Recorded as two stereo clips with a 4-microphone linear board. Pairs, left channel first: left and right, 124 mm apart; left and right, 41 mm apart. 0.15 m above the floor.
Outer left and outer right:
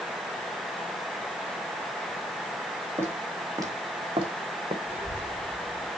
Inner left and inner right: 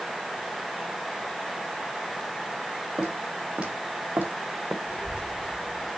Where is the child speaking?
20° right (ahead or behind), 6.5 m.